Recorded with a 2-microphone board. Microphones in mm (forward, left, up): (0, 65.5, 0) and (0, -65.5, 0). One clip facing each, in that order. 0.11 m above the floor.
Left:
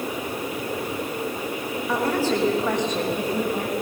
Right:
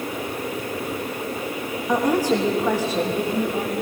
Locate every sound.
1.9 s a woman speaking: 15° right (ahead or behind), 6 m; by 3.7 s centre (ahead or behind), 7 m